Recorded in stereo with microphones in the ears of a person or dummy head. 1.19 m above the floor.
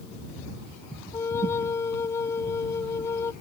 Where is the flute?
15° left (ahead or behind).